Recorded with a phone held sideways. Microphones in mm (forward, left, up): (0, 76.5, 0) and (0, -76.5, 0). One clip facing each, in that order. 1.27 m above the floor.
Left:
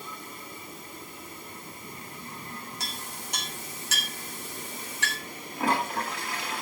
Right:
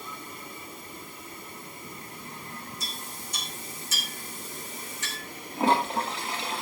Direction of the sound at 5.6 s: 25° right (ahead or behind).